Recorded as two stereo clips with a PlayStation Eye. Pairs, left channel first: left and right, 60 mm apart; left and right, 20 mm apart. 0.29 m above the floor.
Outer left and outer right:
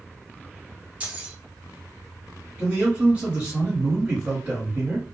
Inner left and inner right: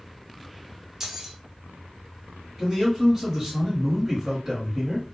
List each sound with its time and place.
1.0 s keys jangling: 25° right (ahead or behind), 0.7 m
2.6 s a man speaking: 25° right (ahead or behind), 1.1 m